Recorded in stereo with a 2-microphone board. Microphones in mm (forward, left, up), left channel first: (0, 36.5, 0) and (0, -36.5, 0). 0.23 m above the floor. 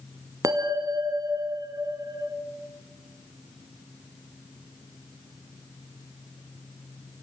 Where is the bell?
55° right (ahead or behind), 1.7 m.